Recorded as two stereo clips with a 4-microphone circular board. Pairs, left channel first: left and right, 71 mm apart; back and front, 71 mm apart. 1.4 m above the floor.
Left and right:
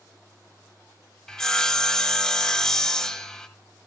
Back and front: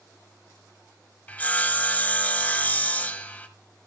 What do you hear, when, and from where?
1.3 s sawing: 160° left, 1.3 m